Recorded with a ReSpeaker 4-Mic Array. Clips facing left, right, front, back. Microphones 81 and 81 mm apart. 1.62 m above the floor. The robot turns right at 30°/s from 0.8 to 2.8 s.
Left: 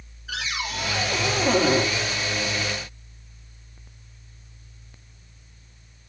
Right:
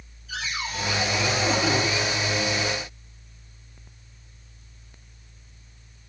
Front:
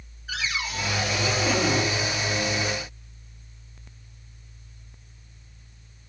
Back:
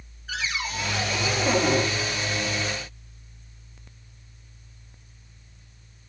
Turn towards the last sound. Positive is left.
turn(degrees=145)